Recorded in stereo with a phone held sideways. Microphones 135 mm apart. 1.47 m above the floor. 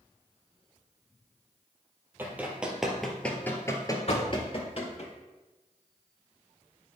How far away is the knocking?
About 1.3 m.